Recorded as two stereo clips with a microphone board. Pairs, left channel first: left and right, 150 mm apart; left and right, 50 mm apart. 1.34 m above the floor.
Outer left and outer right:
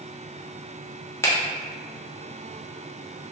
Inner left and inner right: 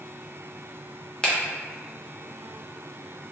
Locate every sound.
1.2 s a finger snap: 20° left (ahead or behind), 0.6 m